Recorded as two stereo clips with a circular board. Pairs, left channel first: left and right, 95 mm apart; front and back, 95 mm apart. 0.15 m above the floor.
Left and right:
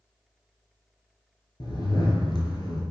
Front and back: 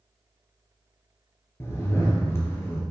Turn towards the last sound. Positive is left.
turn(degrees=55)